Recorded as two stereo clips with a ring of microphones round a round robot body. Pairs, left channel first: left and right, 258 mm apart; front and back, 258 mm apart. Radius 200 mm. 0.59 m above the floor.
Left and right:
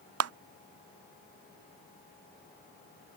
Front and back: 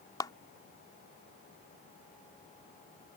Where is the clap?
75° right.